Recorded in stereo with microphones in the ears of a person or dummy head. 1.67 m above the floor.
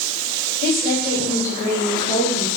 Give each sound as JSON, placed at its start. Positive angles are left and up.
{"t": 0.6, "sound": "a woman speaking", "side_deg": 35, "distance_m": 4.0}